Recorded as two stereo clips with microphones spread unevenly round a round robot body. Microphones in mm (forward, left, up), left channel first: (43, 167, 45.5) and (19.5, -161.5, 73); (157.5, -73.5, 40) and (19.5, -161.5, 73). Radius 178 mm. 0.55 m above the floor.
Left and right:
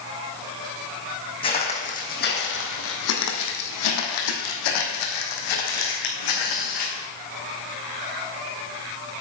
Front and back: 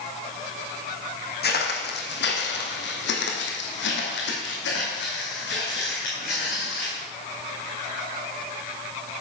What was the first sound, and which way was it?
Footsteps, 10° left.